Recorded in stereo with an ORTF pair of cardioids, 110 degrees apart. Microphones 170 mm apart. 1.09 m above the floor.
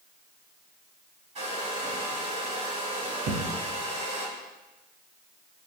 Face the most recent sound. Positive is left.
turn(degrees=-60)